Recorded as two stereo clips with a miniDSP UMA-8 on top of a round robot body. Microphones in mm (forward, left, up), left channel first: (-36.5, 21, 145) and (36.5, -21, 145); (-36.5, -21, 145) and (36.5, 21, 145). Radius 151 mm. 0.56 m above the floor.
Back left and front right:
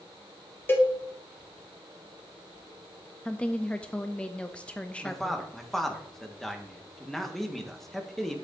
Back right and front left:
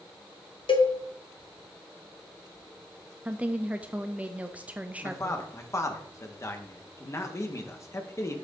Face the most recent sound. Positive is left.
turn(degrees=-125)